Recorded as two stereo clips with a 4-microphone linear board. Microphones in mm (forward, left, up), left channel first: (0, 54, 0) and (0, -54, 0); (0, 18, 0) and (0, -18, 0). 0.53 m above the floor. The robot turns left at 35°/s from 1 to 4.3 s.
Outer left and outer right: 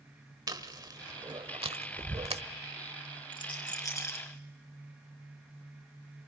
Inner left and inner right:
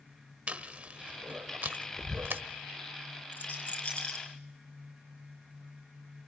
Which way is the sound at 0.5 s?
40° right (ahead or behind).